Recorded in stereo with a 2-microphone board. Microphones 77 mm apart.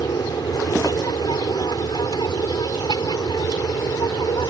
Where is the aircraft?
60° left (ahead or behind); by 4.5 s 65° left (ahead or behind).